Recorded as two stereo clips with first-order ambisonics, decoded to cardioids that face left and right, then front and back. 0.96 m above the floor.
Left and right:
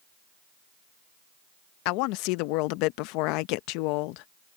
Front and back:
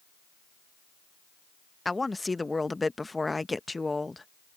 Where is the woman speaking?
80° left.